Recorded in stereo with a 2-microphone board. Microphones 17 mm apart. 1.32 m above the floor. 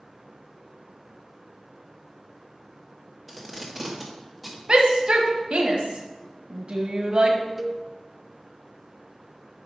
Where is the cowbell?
15° right (ahead or behind), 0.5 m.